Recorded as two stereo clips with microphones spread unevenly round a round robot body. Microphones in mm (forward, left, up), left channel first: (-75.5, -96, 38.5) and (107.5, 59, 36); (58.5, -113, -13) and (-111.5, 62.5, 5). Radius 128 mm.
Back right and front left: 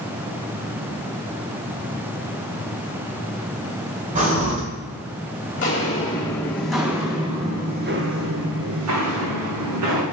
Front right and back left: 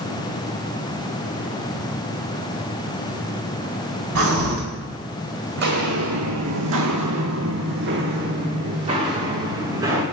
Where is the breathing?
95° left, 2 m.